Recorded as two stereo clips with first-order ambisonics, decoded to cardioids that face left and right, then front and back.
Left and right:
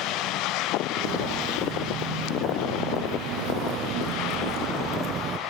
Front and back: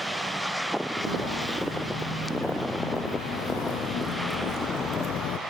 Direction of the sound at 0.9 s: 65° right.